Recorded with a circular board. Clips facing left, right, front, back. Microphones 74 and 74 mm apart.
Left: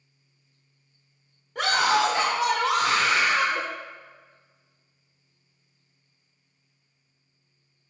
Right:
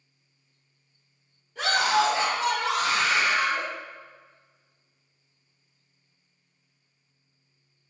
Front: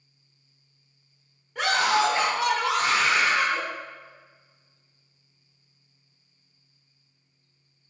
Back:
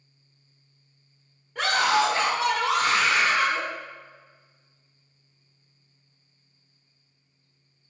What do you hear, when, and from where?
1.6 s a scream: 95° left, 0.7 m